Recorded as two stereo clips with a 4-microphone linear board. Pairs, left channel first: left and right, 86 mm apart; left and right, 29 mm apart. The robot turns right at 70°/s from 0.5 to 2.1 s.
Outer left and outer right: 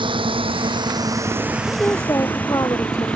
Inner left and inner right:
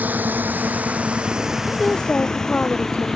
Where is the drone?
65° right (ahead or behind); by 3.2 s 15° left (ahead or behind).